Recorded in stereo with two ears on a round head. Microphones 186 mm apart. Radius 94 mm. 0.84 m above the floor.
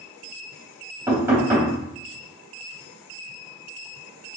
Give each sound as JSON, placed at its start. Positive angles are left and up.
{"t": 1.1, "sound": "knocking", "side_deg": -10, "distance_m": 3.0}